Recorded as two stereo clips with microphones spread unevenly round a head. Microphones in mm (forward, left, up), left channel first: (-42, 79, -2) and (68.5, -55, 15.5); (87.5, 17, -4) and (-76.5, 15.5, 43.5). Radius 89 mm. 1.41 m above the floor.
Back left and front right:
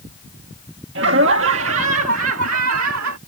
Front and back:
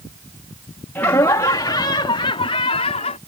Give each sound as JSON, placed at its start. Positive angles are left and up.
{"t": 0.9, "sound": "laughter", "azimuth_deg": -80}